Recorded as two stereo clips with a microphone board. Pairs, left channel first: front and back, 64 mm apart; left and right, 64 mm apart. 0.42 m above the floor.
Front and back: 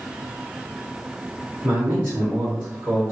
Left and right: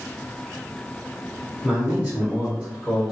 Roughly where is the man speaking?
Behind right.